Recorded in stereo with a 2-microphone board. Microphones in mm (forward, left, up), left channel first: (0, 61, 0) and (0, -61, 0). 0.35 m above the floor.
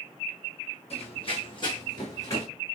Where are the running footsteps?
55° left (ahead or behind), 0.9 m; by 2.5 s 25° left (ahead or behind), 1.5 m.